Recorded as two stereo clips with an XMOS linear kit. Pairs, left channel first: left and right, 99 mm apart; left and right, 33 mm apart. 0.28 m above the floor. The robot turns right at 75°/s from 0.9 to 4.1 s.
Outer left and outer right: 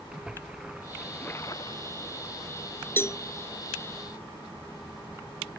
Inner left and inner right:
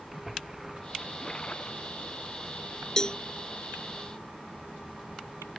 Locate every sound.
0.1 s a splash: 10° right; by 2.0 s 70° left
3.0 s a cowbell: 20° left (ahead or behind); by 3.2 s 35° left (ahead or behind)